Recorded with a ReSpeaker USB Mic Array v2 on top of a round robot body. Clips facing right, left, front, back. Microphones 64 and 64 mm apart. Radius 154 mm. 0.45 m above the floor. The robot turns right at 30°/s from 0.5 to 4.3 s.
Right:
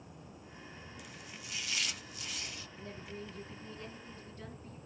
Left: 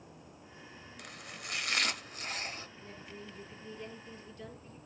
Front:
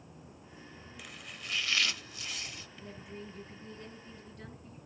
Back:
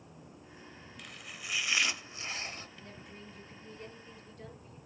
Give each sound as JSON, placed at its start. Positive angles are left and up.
{"t": 1.0, "sound": "chopping", "azimuth_deg": 85, "distance_m": 0.9}
{"t": 2.8, "sound": "a woman speaking", "azimuth_deg": -80, "distance_m": 6.5}